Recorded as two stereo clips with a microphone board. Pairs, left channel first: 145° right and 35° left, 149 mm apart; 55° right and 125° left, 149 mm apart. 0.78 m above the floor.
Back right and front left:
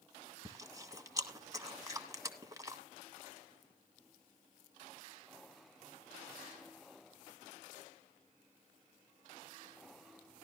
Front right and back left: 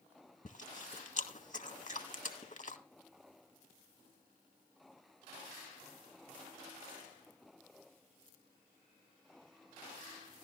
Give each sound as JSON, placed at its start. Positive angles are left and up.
{"t": 0.5, "sound": "chewing", "azimuth_deg": -30, "distance_m": 1.6}